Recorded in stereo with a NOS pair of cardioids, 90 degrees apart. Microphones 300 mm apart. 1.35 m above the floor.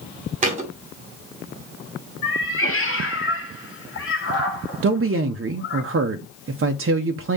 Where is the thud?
25° right, 2 m.